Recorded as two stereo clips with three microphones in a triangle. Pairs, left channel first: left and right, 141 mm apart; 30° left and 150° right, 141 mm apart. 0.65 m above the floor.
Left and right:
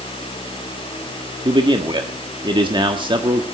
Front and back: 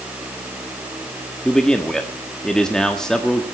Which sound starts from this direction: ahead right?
A man speaking, at 1.4 s.